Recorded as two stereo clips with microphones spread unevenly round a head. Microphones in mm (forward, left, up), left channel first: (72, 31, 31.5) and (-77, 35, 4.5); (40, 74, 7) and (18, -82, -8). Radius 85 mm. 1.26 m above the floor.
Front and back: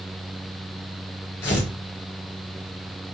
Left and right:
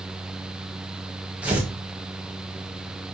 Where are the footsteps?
I don't hear footsteps.